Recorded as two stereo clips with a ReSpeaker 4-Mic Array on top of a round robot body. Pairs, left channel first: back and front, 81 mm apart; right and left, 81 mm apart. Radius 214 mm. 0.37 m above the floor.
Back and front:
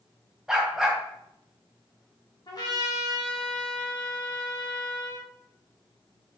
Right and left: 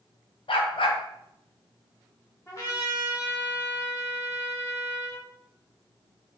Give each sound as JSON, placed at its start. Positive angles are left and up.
{"t": 0.5, "sound": "a dog barking", "azimuth_deg": -85, "distance_m": 1.7}
{"t": 2.5, "sound": "a trumpet", "azimuth_deg": -140, "distance_m": 3.5}